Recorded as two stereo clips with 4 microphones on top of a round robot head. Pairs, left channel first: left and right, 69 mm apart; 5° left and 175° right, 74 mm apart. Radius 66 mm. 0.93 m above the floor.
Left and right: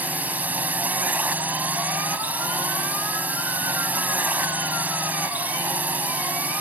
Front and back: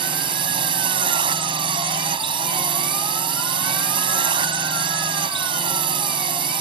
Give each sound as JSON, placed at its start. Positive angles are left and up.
{"t": 0.0, "sound": "a drone", "azimuth_deg": -160}